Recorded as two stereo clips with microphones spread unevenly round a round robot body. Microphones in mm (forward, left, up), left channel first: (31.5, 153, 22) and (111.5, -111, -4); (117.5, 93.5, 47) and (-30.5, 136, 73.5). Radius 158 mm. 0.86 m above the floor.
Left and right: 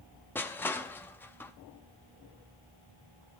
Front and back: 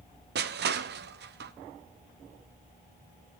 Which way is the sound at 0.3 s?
170° right.